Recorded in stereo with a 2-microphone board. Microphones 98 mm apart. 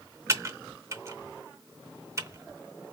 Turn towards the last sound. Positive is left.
turn(degrees=-30)  # may be behind; listen again after turning